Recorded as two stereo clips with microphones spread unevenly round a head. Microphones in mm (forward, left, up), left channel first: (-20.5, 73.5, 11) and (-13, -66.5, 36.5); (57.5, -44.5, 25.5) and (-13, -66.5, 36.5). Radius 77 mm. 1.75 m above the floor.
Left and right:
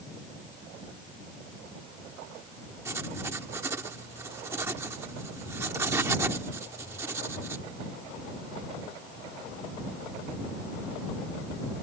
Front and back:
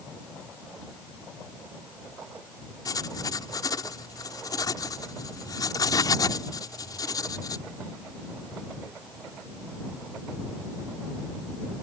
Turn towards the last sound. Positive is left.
turn(degrees=-20)